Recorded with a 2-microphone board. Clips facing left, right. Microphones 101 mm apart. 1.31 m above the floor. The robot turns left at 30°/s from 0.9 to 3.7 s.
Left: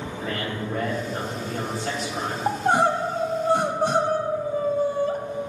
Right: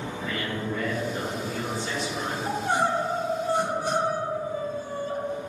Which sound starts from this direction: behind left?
Crying, at 2.5 s.